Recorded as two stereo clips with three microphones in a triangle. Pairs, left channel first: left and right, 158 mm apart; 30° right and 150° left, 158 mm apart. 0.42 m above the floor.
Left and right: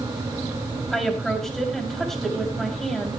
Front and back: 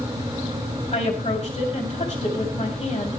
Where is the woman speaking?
Straight ahead, 2.5 m.